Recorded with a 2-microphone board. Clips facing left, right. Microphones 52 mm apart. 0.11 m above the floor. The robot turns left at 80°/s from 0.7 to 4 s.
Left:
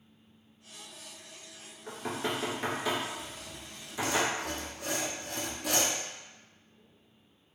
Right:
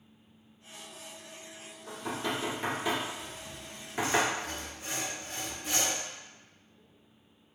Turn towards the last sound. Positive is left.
turn(degrees=100)